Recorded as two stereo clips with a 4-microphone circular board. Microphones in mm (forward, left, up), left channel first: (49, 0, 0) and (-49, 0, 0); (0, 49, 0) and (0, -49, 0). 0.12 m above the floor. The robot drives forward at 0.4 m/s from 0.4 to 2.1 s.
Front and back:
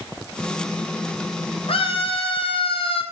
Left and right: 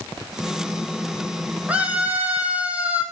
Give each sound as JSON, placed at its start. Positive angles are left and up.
{"t": 1.7, "sound": "a scream", "azimuth_deg": -15, "distance_m": 4.0}